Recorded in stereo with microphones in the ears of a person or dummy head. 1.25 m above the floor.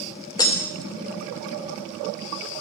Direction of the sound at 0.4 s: 20° left (ahead or behind).